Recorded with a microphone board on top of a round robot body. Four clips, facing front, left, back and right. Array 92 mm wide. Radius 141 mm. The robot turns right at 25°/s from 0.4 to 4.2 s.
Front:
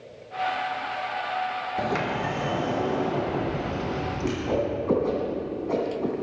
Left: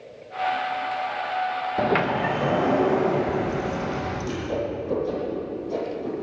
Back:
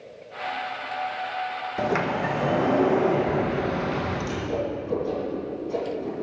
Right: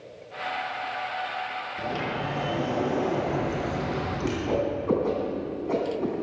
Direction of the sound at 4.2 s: 50° right.